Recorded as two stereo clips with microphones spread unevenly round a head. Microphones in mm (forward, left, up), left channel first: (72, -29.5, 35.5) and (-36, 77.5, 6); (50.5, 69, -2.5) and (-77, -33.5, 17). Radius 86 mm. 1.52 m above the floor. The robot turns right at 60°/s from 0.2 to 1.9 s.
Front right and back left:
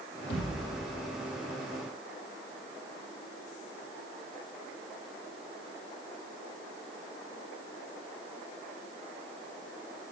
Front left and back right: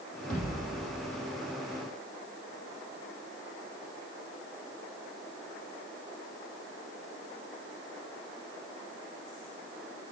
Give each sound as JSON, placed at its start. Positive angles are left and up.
{"t": 0.3, "sound": "a thud", "azimuth_deg": -50, "distance_m": 4.5}